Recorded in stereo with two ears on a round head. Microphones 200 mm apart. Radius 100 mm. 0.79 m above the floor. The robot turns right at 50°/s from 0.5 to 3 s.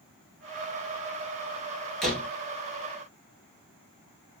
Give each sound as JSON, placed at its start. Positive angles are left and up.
{"t": 2.0, "sound": "a door slam", "side_deg": 0, "distance_m": 1.8}